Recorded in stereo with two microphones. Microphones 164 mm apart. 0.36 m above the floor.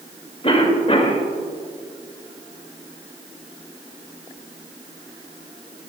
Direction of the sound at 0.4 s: 40° left (ahead or behind).